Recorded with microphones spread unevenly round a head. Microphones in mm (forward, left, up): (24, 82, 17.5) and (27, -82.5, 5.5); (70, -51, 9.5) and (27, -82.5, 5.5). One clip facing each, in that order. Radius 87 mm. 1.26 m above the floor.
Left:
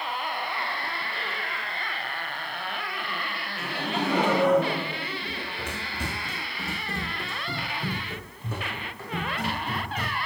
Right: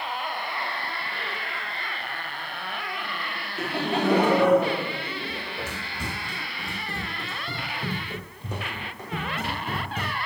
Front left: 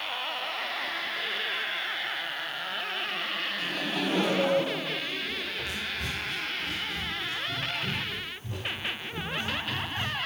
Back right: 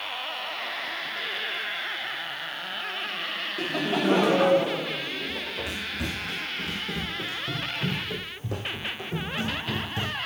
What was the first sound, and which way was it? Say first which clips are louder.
Laughter: right 4 dB, back right 8 dB; 145° right.